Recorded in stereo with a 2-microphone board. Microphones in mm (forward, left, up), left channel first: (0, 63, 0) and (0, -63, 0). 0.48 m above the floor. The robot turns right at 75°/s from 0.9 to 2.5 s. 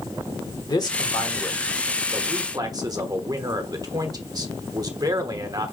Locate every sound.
0.7 s a man speaking: 115° left, 1.1 m; by 5.7 s 125° right, 1.1 m